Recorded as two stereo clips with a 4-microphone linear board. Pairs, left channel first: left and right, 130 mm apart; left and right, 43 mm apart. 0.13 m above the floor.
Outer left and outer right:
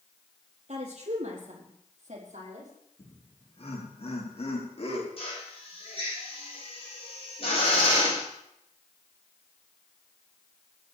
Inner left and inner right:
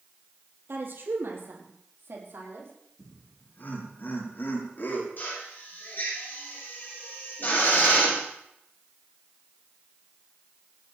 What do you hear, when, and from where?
0.7 s a woman speaking: 60° right (ahead or behind), 4 m; by 2.7 s 70° right (ahead or behind), 6 m
3.0 s laughter: 50° left (ahead or behind), 6 m
5.2 s a drill: 50° left (ahead or behind), 10 m